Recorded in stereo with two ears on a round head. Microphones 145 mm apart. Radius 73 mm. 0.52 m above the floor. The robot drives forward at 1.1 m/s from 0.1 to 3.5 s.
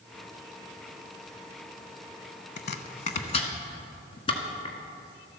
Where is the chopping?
75° left (ahead or behind), 0.9 m; by 4.8 s 35° left (ahead or behind), 1.5 m.